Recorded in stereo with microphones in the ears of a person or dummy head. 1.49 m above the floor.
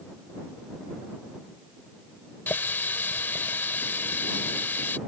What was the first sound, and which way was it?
A running tap, 10° left (ahead or behind).